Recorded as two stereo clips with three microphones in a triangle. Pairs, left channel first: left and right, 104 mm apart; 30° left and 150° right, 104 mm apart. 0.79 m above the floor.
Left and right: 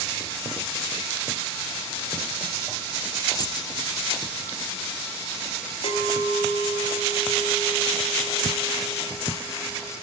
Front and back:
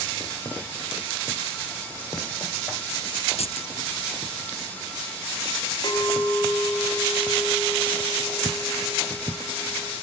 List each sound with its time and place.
3.4 s keys jangling: 40° left, 1.3 m
5.8 s a clink: 85° left, 3.5 m